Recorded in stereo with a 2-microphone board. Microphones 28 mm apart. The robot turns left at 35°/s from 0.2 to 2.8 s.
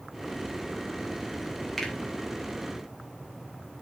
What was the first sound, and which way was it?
A finger snap, 10° left (ahead or behind).